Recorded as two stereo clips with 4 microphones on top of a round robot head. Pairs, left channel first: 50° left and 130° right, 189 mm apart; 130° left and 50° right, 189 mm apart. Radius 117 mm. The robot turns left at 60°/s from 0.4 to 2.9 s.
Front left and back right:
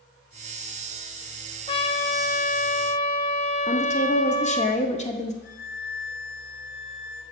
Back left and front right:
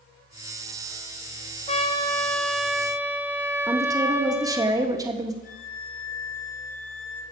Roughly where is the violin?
Left.